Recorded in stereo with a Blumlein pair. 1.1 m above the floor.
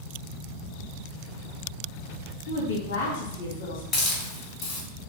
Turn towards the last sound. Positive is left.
turn(degrees=30)